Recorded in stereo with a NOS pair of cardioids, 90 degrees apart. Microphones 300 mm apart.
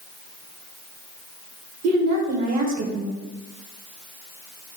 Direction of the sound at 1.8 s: 60° right.